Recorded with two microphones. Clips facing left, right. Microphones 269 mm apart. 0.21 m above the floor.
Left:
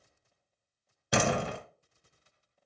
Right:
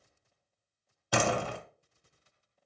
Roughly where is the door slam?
Left.